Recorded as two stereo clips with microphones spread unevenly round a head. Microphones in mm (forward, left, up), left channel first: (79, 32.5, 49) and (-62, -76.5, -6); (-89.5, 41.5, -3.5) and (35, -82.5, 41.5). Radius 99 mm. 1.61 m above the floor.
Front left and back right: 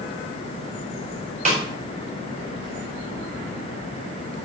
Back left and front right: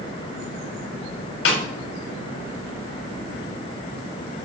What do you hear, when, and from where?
1.4 s a snare drum: 155° left, 4.5 m